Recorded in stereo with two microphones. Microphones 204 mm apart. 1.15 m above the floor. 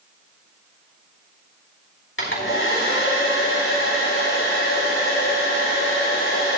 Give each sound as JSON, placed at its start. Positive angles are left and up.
{"t": 2.2, "sound": "a hair dryer", "side_deg": 80, "distance_m": 4.0}